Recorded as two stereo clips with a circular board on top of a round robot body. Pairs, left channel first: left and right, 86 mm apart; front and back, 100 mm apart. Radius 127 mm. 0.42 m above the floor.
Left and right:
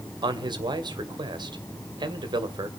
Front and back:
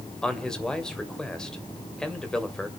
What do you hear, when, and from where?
0.2 s a man speaking: 80° right, 2.5 m